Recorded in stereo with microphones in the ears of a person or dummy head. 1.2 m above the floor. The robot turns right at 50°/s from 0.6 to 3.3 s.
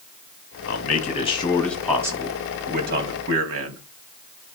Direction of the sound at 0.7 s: 120° left.